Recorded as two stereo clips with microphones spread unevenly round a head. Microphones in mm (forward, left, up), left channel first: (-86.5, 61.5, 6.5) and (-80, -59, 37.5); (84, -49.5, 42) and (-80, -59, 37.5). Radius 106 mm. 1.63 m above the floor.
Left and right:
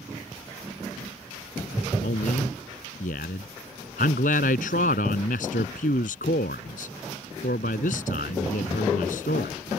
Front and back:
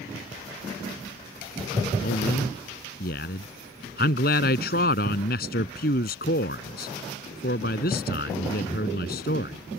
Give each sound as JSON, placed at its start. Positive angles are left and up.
{"t": 2.0, "sound": "a man speaking", "azimuth_deg": 50}